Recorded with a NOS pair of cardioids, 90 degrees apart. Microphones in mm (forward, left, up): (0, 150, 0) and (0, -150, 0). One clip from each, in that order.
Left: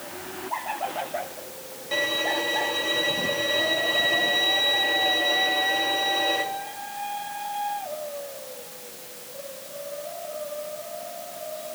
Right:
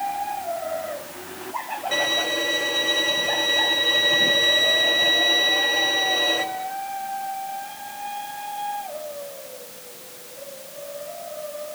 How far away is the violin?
About 2.5 m.